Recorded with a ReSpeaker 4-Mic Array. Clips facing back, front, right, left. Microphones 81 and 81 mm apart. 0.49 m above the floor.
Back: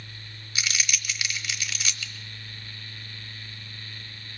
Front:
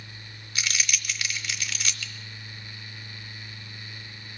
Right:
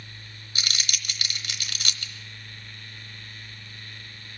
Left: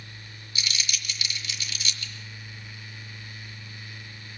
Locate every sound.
0.6 s crumpling: 95° right, 1.0 m